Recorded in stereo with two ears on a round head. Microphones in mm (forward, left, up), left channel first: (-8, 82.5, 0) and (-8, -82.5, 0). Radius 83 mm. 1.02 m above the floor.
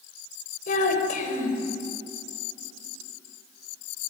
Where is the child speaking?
45° left (ahead or behind), 4 m.